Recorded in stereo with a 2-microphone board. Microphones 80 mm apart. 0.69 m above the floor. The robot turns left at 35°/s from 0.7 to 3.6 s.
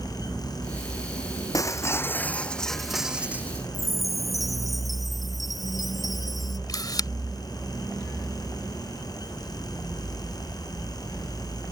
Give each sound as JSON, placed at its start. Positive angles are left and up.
{"t": 1.5, "sound": "breaking glass", "azimuth_deg": 45}
{"t": 3.7, "sound": "a chime", "side_deg": 0}
{"t": 6.7, "sound": "a camera shutter", "side_deg": 55}